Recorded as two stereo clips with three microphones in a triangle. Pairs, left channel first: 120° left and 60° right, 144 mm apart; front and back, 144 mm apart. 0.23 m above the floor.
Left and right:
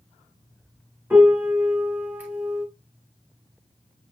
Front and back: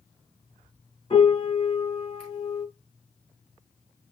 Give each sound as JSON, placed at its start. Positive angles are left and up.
{"t": 1.1, "sound": "a piano", "azimuth_deg": 10, "distance_m": 1.6}